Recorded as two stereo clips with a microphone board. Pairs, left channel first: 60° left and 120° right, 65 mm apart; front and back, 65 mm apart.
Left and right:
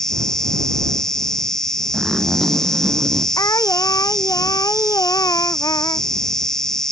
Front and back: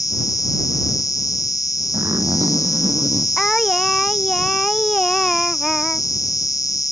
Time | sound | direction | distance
0.0 | an insect | 20° right | ?
1.9 | a zipper | 155° left | ?
3.4 | singing | 85° left | ?